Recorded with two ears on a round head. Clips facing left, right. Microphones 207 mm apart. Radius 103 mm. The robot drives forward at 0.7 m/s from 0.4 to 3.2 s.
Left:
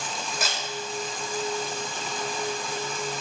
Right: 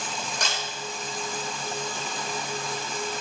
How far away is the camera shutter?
About 5 m.